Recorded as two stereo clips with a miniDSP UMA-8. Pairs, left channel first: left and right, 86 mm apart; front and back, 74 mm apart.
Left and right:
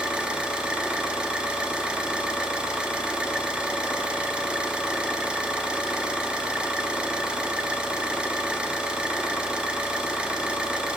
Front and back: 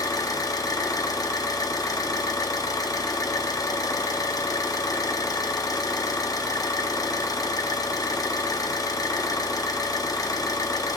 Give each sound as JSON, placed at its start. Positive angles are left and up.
{"t": 0.0, "sound": "an engine running", "azimuth_deg": -15, "distance_m": 1.1}